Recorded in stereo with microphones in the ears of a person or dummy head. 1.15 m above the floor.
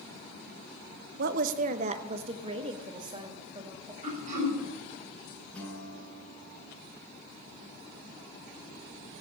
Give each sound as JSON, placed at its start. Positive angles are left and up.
{"t": 1.2, "sound": "a woman speaking", "side_deg": -55, "distance_m": 0.6}
{"t": 4.0, "sound": "throat clearing", "side_deg": -45, "distance_m": 7.5}
{"t": 5.5, "sound": "a guitar", "side_deg": 5, "distance_m": 5.0}